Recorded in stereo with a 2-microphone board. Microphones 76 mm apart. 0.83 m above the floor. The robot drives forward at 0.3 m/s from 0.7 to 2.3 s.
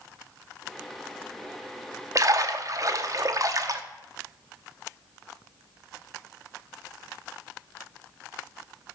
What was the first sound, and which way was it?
A splash, 45° right (ahead or behind).